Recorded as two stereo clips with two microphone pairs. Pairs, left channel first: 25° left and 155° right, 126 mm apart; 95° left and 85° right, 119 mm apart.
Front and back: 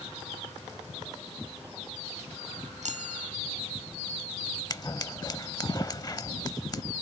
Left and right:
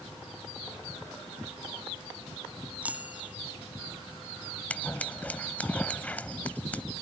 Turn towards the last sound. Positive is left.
turn(degrees=30)